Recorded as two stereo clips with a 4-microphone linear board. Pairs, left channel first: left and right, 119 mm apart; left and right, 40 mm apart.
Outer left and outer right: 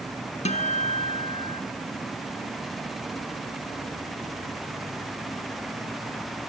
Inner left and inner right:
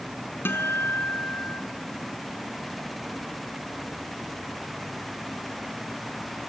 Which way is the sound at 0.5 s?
70° left (ahead or behind).